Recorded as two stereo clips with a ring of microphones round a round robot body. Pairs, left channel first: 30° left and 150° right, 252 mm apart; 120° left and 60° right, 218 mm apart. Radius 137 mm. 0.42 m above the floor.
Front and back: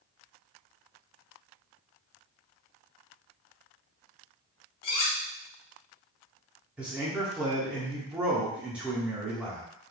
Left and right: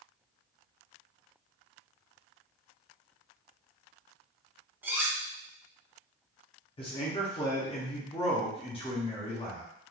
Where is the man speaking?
130° left, 0.7 m.